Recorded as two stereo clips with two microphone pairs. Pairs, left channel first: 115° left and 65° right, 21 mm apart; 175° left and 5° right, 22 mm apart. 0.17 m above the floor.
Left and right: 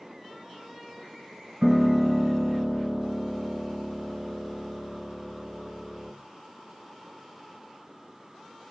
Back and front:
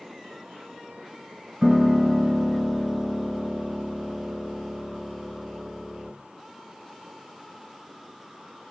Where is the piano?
55° right, 2 m.